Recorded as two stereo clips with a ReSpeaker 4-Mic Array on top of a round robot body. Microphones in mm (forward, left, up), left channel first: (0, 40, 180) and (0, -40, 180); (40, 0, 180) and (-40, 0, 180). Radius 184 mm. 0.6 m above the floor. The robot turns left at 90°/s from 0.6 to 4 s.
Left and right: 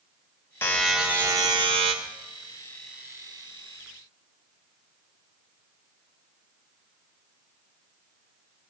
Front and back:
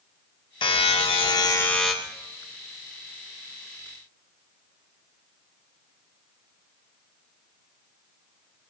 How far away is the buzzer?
About 0.6 m.